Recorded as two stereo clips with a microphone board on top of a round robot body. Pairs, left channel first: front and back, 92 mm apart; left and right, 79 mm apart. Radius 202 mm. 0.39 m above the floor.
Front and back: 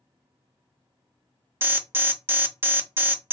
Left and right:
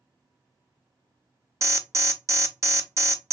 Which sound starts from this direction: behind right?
An alarm, at 1.6 s.